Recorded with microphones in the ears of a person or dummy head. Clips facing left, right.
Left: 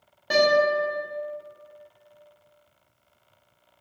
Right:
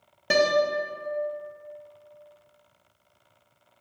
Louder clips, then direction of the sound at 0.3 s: Left 2 dB; 35° right (ahead or behind).